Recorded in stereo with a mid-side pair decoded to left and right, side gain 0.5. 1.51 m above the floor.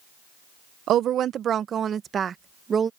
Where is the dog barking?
I don't hear a dog barking.